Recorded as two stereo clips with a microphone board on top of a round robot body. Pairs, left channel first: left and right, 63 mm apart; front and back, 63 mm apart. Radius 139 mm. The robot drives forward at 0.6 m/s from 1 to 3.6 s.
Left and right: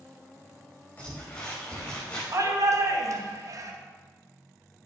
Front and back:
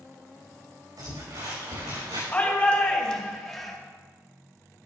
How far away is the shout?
About 2.5 m.